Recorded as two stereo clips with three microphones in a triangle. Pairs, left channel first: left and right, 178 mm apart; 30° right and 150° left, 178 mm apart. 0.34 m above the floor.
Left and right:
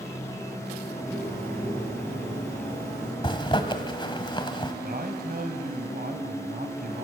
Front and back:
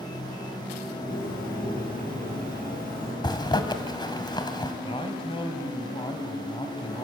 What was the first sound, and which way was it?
A bird, 5° left.